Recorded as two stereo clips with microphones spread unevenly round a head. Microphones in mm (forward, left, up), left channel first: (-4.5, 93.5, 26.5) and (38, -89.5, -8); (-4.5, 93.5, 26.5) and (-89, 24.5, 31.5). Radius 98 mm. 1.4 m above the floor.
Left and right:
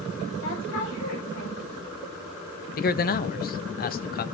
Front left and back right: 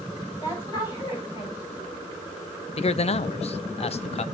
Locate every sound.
0.4 s a woman speaking: 90° left, 9 m
2.8 s a man speaking: 55° left, 0.8 m